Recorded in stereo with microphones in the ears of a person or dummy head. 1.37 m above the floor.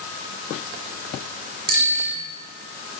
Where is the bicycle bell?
55° right (ahead or behind), 6 m.